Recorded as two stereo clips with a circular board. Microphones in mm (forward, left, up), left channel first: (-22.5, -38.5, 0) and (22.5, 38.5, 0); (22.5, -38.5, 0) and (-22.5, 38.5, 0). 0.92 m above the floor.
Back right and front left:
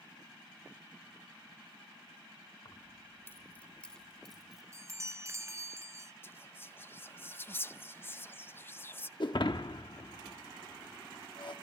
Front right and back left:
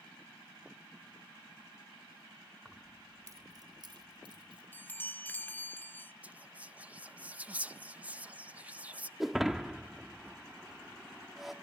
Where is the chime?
10° left, 0.5 m.